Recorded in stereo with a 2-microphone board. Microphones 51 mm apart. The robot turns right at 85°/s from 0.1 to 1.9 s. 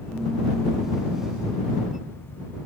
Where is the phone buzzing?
I don't hear a phone buzzing.